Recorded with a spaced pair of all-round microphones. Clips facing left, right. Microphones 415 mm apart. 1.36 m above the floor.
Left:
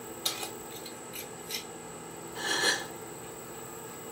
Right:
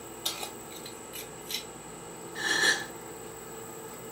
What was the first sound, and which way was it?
Keys jangling, 40° left (ahead or behind).